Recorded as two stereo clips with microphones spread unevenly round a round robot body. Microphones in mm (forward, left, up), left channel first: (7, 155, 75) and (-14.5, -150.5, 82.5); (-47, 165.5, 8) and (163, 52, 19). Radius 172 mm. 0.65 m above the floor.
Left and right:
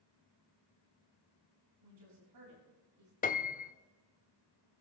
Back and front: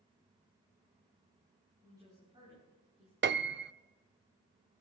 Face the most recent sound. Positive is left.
turn(degrees=20)